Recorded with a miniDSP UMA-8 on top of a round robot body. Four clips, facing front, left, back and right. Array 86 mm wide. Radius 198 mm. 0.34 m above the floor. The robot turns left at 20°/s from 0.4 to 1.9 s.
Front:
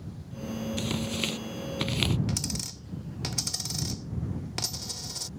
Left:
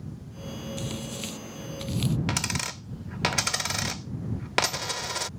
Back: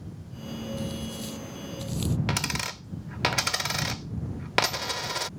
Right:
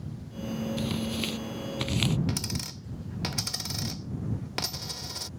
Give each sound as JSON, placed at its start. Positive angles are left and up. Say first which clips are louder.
{"t": 0.8, "sound": "tearing paper", "louder": "right 4 dB, front 3 dB", "azimuth_deg": -10}
{"t": 2.3, "sound": "a dropped coin", "louder": "left 3 dB, back 4 dB", "azimuth_deg": 140}